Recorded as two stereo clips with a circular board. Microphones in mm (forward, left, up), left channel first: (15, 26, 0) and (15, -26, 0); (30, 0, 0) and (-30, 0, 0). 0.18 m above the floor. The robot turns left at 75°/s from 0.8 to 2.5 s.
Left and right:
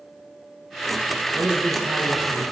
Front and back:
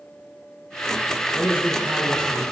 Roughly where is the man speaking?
Ahead right.